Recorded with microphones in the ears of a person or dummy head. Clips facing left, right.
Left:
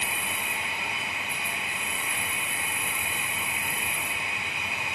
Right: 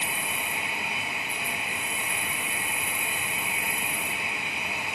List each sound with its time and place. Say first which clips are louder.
0.0 s an insect: right 1 dB; 30° right (ahead or behind), 1.9 m